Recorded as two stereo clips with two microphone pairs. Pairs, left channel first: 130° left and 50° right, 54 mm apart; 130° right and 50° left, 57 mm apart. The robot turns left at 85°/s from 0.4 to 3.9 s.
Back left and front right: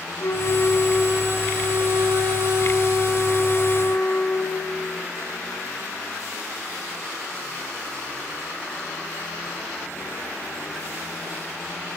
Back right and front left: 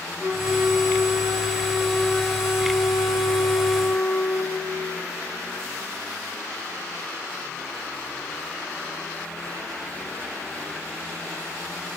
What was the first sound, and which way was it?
A flute, 100° left.